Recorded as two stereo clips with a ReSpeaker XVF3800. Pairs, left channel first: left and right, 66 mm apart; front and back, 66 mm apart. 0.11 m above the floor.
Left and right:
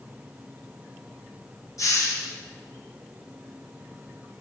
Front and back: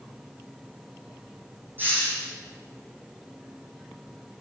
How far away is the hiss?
About 1.7 m.